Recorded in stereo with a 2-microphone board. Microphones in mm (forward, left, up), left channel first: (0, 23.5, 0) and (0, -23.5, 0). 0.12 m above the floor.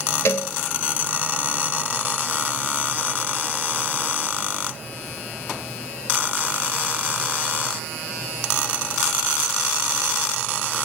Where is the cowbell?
55° left (ahead or behind), 0.6 m.